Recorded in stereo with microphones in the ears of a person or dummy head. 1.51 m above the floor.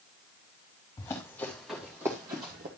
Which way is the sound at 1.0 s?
10° left (ahead or behind).